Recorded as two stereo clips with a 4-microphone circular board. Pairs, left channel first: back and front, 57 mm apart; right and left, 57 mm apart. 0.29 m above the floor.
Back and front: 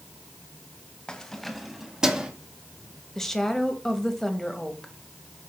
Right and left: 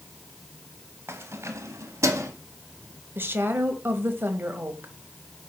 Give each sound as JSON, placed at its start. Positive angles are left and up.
{"t": 1.1, "sound": "keys jangling", "azimuth_deg": 110, "distance_m": 1.0}
{"t": 3.1, "sound": "a woman speaking", "azimuth_deg": 100, "distance_m": 1.2}